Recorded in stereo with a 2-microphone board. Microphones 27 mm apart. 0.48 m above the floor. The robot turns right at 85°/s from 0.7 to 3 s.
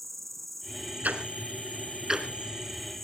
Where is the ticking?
65° right (ahead or behind), 2 m; by 3.0 s 55° left (ahead or behind), 2 m.